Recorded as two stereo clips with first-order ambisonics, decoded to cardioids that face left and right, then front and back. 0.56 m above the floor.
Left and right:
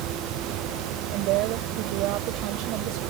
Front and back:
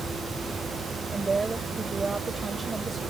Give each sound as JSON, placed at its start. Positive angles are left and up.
{"t": 1.1, "sound": "a woman speaking", "azimuth_deg": -105}